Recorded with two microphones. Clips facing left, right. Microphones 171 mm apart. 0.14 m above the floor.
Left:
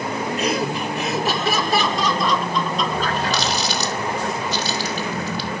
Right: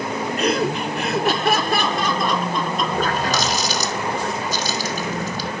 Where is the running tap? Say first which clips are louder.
Right 1 dB; 45° right (ahead or behind), 4 m.